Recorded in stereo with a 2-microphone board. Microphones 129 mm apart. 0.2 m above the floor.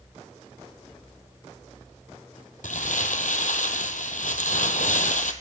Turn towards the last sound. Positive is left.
turn(degrees=80)